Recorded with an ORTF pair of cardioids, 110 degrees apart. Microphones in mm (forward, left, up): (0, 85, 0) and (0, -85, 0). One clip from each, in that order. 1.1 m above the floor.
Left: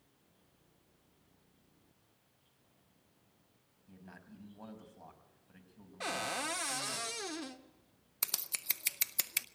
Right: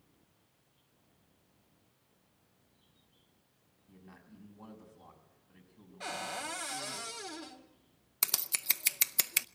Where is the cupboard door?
30° left, 1.5 m.